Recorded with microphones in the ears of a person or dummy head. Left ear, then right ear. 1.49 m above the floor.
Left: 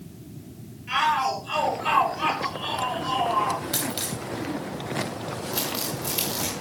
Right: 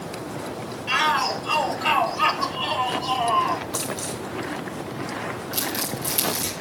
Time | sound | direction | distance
0.9 | a shout | 35° right (ahead or behind) | 8 m
3.7 | a dropped coin | 55° left (ahead or behind) | 7.5 m
5.5 | crumpling | 5° right (ahead or behind) | 6.5 m